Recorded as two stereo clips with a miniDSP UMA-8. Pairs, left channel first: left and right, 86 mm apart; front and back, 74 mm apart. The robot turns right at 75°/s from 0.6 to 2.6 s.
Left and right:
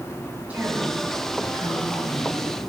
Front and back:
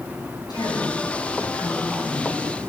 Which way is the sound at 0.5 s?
15° right.